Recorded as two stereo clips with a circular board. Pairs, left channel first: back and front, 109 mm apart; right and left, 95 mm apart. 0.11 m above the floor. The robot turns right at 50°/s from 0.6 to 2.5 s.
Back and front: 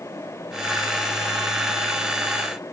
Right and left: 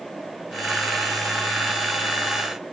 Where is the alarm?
No alarm in this recording.